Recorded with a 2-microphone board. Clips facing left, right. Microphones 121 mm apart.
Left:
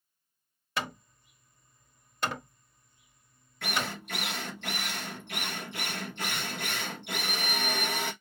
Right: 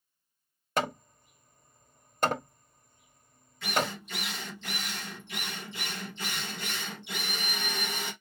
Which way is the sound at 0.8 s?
45° right (ahead or behind).